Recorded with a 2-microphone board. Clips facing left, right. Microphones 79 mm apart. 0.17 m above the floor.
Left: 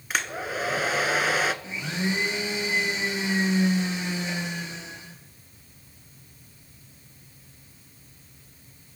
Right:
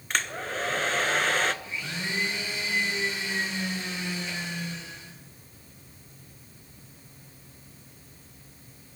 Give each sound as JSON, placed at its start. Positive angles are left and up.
{"t": 0.1, "sound": "a hair dryer", "side_deg": 10, "distance_m": 0.6}
{"t": 1.6, "sound": "a blender", "side_deg": 20, "distance_m": 3.5}